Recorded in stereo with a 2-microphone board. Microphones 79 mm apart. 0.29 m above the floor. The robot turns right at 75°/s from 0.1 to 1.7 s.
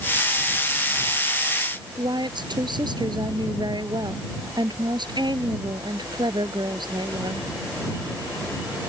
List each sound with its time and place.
2.0 s a woman speaking: 65° right (ahead or behind)